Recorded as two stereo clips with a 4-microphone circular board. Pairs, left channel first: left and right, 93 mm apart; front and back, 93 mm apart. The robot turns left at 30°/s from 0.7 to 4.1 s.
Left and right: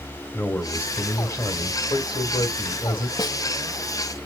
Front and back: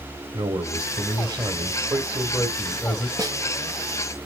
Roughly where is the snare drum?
Behind left.